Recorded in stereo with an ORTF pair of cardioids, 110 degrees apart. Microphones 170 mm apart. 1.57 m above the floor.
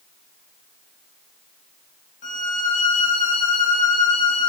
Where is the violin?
50° left, 5 m.